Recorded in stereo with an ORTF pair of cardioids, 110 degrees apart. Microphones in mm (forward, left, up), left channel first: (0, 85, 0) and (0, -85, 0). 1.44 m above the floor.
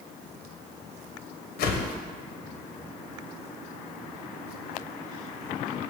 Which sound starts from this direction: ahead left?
A whoosh, at 1.6 s.